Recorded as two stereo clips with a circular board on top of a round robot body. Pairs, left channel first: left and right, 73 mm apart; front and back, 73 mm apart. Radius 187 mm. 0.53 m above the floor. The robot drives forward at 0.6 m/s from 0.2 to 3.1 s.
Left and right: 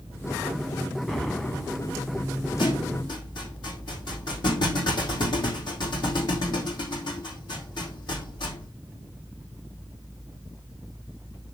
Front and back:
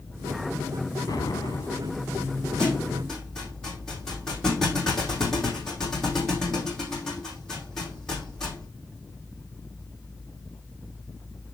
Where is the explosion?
10° left, 2.5 m.